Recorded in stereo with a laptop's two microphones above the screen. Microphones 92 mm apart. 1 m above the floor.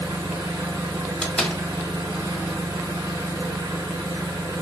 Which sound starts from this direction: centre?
A door slam, at 1.2 s.